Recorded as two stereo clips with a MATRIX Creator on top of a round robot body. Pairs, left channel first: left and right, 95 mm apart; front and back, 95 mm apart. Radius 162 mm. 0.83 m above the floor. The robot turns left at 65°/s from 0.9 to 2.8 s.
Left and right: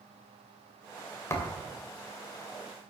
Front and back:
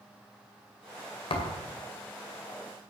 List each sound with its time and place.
1.3 s a thud: 30° left, 2.5 m; by 1.7 s 5° left, 2.5 m